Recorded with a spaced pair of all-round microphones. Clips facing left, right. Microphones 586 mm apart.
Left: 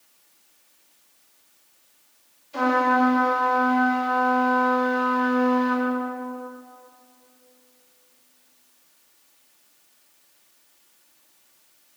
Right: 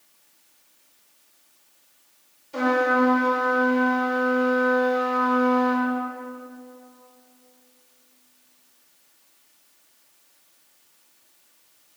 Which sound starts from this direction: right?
A trumpet, at 2.5 s.